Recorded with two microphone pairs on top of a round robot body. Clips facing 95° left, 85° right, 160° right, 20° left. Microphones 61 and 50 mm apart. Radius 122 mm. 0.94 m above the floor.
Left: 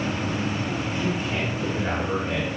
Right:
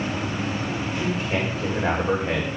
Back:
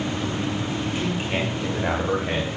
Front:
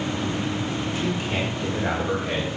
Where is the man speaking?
100° right, 2 m.